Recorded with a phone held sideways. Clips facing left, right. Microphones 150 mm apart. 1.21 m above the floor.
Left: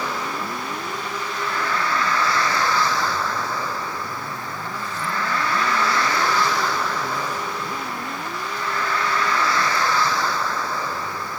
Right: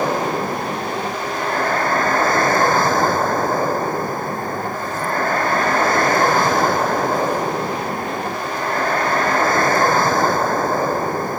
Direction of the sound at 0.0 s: 50° right (ahead or behind).